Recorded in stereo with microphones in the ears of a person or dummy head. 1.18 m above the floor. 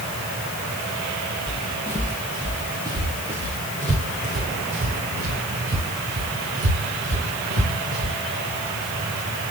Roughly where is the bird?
I don't hear a bird.